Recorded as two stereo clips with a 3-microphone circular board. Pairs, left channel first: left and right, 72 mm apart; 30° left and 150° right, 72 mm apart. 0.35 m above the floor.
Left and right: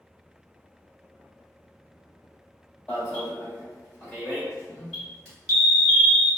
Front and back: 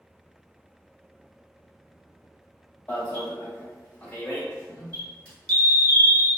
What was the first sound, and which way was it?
An alarm, 35° left.